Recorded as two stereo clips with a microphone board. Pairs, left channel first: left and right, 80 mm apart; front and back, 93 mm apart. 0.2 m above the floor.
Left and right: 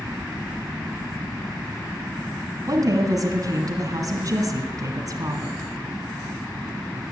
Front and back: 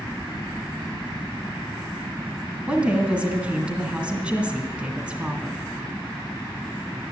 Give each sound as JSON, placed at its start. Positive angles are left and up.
{"t": 2.7, "sound": "a woman speaking", "azimuth_deg": -105, "distance_m": 1.8}